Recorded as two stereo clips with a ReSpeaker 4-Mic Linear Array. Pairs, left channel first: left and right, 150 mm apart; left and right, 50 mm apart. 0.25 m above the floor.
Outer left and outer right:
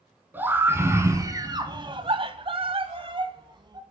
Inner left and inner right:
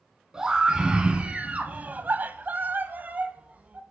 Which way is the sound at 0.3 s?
15° right (ahead or behind).